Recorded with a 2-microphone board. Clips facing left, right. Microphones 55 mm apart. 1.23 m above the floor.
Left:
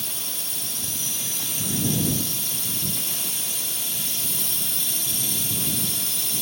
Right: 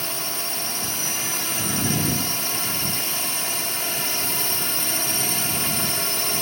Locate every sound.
0.0 s a drone: 55° right (ahead or behind)